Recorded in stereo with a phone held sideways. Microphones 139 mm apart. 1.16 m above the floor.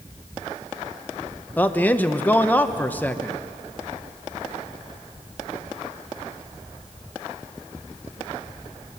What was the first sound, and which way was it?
A man speaking, 10° left (ahead or behind).